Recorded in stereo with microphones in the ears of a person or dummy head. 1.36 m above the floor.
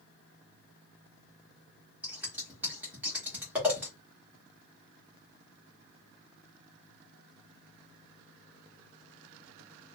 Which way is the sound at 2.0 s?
Centre (ahead or behind).